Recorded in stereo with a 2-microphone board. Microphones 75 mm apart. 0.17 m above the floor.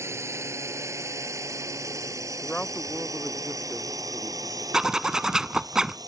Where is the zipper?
10° right (ahead or behind).